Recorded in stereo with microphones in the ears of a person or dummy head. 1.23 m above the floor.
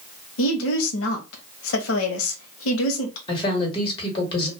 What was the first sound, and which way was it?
A woman speaking, 85° left.